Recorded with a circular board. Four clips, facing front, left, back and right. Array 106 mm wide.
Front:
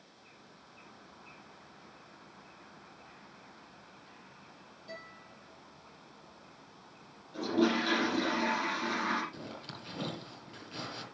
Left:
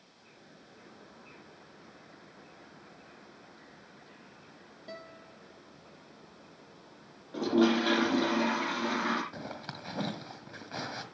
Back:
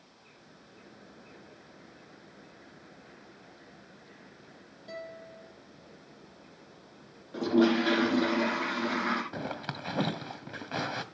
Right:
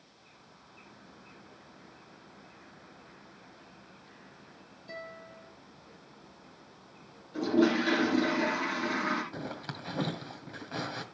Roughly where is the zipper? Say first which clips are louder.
Right 2 dB, back 8 dB; behind.